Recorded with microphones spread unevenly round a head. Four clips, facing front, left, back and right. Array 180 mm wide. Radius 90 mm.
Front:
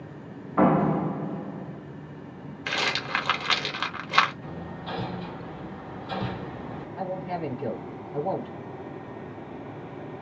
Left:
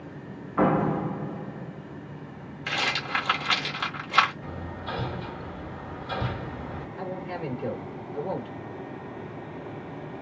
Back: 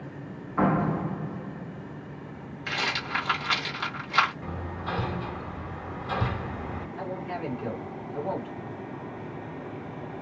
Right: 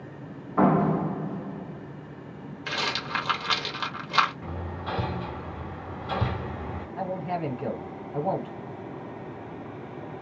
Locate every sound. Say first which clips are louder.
0.6 s a door slam: right 1 dB, front 4 dB; 40° right, 0.7 m
2.7 s a rattle: left 1 dB, front 2 dB; 20° right, 1.2 m
4.4 s hammering: right 1 dB, back 2 dB; 100° right, 1.4 m
7.0 s a man speaking: right 5 dB, front 4 dB; 65° right, 1.3 m